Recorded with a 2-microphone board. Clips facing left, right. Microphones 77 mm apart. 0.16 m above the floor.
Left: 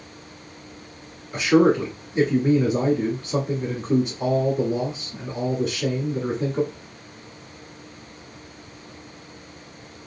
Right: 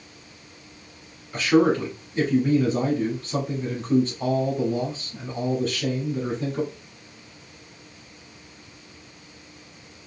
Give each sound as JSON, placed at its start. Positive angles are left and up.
{"t": 1.3, "sound": "a man speaking", "side_deg": 10, "distance_m": 1.0}